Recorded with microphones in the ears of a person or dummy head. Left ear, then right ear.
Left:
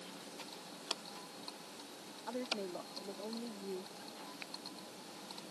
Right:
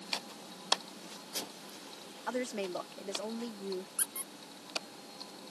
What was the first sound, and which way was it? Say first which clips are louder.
A woman speaking: right 5 dB; 75° right (ahead or behind).